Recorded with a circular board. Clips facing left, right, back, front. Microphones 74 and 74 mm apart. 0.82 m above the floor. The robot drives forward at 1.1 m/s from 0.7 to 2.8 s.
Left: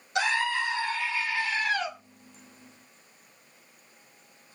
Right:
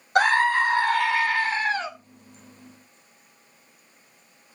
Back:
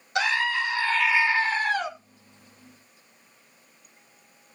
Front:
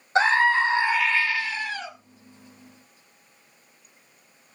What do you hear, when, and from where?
0.1 s a scream: 55° right, 0.7 m; by 1.9 s 150° right, 1.1 m